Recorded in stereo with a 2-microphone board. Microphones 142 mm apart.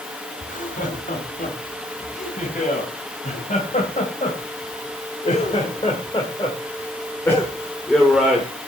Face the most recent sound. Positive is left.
turn(degrees=-10)  # may be behind; listen again after turning